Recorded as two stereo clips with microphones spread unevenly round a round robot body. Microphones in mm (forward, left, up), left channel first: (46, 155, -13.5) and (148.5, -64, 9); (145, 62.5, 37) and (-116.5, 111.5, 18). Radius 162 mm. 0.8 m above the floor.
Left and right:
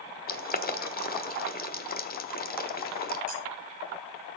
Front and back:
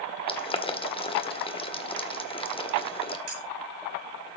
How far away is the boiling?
About 1.4 m.